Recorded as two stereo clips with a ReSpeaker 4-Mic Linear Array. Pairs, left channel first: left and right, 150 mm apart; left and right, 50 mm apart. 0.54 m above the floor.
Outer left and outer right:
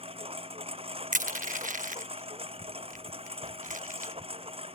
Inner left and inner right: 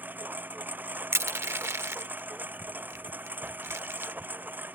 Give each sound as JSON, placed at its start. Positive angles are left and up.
{"t": 0.0, "sound": "a lawn mower", "side_deg": -40}
{"t": 1.1, "sound": "crushing", "side_deg": -60}